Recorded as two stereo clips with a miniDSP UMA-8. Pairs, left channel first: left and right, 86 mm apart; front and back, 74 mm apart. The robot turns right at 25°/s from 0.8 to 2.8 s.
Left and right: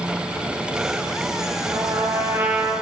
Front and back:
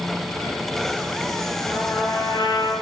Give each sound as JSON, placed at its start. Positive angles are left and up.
{"t": 1.7, "sound": "a trumpet", "azimuth_deg": -45, "distance_m": 9.0}